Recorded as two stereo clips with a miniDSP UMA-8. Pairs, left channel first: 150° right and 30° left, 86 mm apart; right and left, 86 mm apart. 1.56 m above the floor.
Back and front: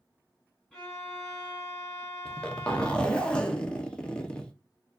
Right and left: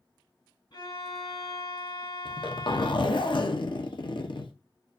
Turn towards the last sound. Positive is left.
turn(degrees=-70)